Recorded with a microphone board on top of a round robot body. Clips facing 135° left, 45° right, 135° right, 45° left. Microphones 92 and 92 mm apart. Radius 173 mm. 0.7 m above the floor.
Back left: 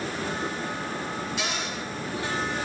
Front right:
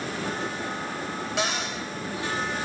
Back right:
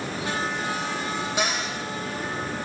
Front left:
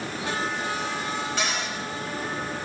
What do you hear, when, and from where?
1.4 s a cupboard door: 55° right, 5.5 m